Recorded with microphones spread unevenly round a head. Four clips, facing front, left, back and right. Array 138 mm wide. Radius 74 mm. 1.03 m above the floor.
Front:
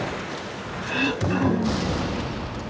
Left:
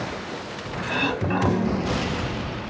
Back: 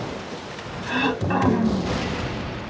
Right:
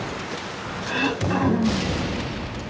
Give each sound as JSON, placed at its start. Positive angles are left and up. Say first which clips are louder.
{"t": 0.9, "sound": "throat clearing", "louder": "right 1 dB, back 2 dB", "azimuth_deg": -170, "distance_m": 2.5}